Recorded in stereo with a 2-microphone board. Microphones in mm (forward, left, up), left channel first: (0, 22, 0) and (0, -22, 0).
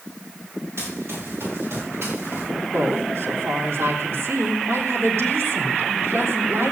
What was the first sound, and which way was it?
Running footsteps, 65° right (ahead or behind).